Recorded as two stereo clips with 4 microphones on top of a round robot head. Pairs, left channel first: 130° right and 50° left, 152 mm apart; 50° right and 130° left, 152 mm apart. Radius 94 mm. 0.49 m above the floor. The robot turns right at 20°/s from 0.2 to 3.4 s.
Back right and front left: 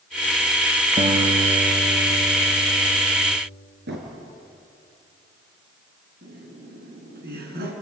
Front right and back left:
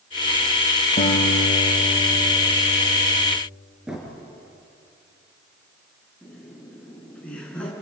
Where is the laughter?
30° left, 6 m.